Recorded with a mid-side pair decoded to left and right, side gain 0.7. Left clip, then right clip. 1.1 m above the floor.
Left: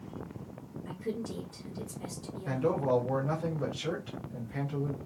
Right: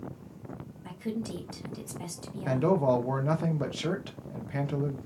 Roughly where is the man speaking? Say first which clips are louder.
Right 4 dB; ahead right.